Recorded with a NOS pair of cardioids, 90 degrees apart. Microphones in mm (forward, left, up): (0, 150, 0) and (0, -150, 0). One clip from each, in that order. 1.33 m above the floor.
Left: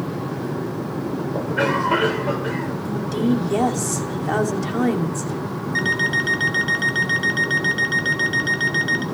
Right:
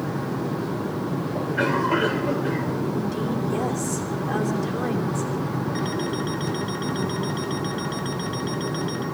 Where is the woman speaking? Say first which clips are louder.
Left 4 dB; 50° left, 3 m.